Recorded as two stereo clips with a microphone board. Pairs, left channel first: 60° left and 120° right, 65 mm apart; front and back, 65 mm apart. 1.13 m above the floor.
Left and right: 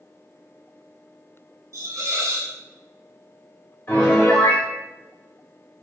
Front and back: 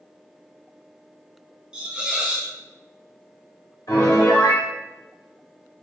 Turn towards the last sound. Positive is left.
turn(degrees=10)